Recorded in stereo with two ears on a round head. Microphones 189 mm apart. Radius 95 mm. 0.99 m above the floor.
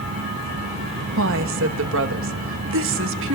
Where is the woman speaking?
65° right (ahead or behind), 1.1 m.